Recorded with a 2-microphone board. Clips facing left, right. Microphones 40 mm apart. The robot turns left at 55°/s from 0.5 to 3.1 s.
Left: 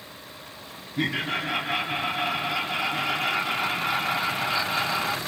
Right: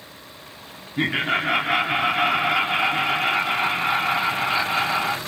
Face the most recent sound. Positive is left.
turn(degrees=-160)